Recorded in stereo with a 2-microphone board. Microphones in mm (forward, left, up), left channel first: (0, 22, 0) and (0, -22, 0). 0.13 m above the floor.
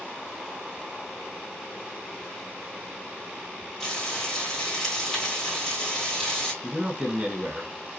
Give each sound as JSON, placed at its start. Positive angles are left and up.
{"t": 3.8, "sound": "frying", "side_deg": 10, "distance_m": 2.5}
{"t": 6.6, "sound": "a man speaking", "side_deg": -25, "distance_m": 1.2}